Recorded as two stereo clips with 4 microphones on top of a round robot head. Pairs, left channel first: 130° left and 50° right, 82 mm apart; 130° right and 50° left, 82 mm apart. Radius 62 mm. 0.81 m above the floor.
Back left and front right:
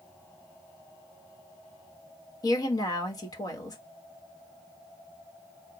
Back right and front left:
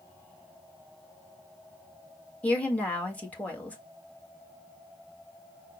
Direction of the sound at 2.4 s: 160° left.